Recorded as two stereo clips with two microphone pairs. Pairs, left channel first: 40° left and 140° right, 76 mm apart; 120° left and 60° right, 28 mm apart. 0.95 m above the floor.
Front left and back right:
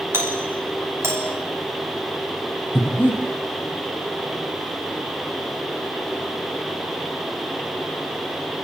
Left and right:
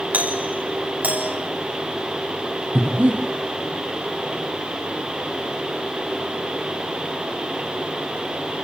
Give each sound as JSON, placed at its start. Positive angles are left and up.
{"t": 0.1, "sound": "a doorbell", "azimuth_deg": -85, "distance_m": 7.0}
{"t": 2.8, "sound": "breathing", "azimuth_deg": -30, "distance_m": 5.0}